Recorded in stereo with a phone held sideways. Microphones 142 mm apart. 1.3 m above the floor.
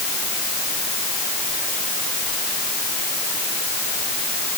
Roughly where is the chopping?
I don't hear chopping.